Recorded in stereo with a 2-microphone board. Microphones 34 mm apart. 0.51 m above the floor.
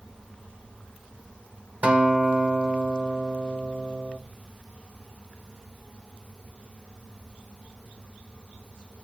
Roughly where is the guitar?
Right.